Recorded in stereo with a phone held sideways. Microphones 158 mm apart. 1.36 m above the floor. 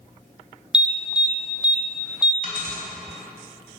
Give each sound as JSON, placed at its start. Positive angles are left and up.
{"t": 0.7, "sound": "an alarm", "side_deg": -5, "distance_m": 0.6}
{"t": 2.4, "sound": "a dropped coin", "side_deg": -65, "distance_m": 2.0}